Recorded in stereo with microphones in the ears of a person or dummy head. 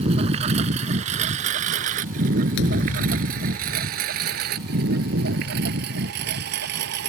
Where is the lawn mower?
35° right (ahead or behind); by 7.1 s 60° right (ahead or behind).